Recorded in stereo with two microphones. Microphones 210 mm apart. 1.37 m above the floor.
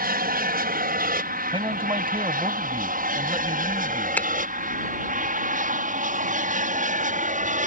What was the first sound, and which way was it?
An aircraft, 45° right (ahead or behind).